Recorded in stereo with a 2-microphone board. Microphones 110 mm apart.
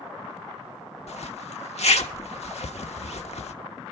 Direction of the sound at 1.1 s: 80° left.